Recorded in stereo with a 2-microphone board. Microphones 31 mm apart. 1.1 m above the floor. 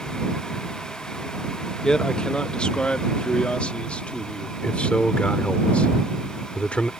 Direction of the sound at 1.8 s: 25° left (ahead or behind).